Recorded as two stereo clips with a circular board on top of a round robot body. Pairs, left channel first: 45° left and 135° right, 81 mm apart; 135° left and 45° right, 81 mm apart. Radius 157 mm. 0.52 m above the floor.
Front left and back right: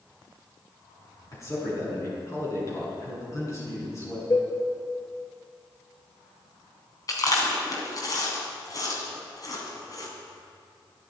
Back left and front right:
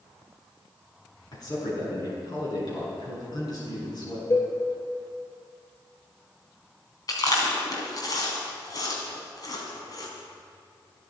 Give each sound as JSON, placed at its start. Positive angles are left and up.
{"t": 1.3, "sound": "a man speaking", "azimuth_deg": 100, "distance_m": 6.0}
{"t": 4.3, "sound": "a cowbell", "azimuth_deg": 90, "distance_m": 3.5}
{"t": 7.1, "sound": "chewing", "azimuth_deg": 95, "distance_m": 3.0}